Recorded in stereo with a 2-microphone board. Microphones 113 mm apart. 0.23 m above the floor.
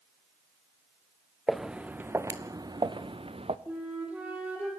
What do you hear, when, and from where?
1.5 s footsteps: centre (ahead or behind), 1.2 m; by 3.6 s 55° right (ahead or behind), 1.3 m
3.7 s a flute: 15° right (ahead or behind), 4.5 m